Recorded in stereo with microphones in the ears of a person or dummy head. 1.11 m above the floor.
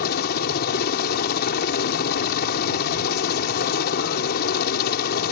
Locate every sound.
0.0 s a helicopter: 55° left (ahead or behind)